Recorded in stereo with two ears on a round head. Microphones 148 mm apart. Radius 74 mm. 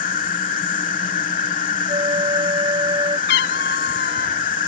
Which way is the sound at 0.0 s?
50° left (ahead or behind).